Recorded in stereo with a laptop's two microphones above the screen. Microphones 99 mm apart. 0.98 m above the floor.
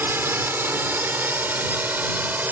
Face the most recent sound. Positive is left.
turn(degrees=-20)  # may be behind; listen again after turning